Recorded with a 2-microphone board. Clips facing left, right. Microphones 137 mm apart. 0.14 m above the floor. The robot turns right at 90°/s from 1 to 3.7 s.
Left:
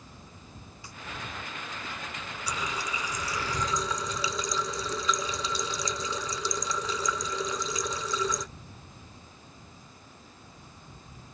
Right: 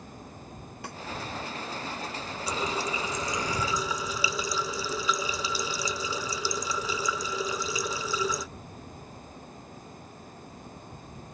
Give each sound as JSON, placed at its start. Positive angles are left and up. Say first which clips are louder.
{"t": 0.8, "sound": "a snare drum", "louder": "right 9 dB", "side_deg": -65}
{"t": 2.5, "sound": "a running tap", "louder": "right 4 dB", "azimuth_deg": -120}